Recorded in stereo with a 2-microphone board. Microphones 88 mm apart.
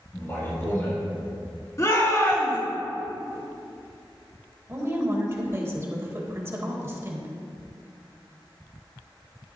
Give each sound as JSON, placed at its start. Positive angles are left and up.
{"t": 0.1, "sound": "a man speaking", "side_deg": 35, "distance_m": 3.0}
{"t": 1.8, "sound": "a shout", "side_deg": 40, "distance_m": 3.5}
{"t": 4.7, "sound": "a woman speaking", "side_deg": -30, "distance_m": 1.5}